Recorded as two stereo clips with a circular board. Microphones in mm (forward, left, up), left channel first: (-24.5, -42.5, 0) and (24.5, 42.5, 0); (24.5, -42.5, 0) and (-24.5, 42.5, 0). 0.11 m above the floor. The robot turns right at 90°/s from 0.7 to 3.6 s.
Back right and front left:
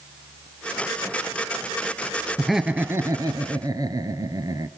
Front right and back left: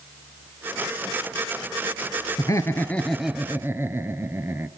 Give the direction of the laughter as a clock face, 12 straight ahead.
1 o'clock.